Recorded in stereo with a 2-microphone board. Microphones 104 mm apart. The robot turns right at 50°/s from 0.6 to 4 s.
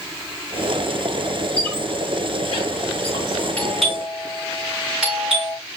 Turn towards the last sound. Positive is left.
turn(degrees=-10)  # may be behind; listen again after turning